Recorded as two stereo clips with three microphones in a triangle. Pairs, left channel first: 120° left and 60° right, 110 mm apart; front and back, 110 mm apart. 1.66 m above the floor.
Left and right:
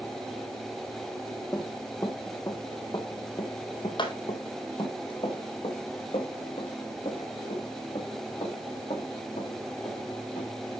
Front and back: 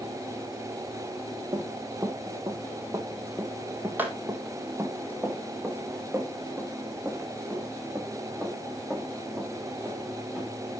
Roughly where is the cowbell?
I don't hear a cowbell.